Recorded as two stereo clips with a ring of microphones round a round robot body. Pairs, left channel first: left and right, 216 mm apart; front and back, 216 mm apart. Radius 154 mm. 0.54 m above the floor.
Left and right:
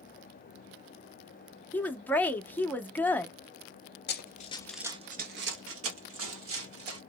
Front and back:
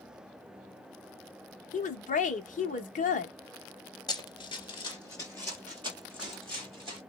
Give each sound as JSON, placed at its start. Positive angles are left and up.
{"t": 1.7, "sound": "a woman speaking", "azimuth_deg": 15, "distance_m": 0.7}
{"t": 4.1, "sound": "running footsteps", "azimuth_deg": 70, "distance_m": 0.7}